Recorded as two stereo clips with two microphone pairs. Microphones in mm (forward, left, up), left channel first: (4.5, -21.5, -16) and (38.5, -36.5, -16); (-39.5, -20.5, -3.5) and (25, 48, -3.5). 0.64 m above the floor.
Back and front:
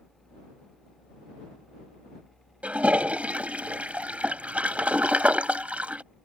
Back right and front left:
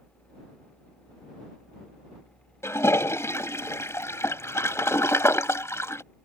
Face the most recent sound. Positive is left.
turn(degrees=-75)